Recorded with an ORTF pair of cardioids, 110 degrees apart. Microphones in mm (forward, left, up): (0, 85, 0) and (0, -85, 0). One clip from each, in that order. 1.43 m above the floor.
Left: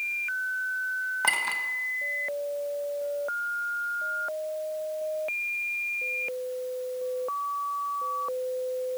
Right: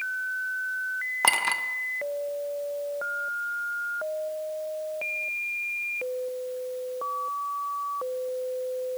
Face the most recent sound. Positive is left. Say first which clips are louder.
# right 4 dB
turn(degrees=-35)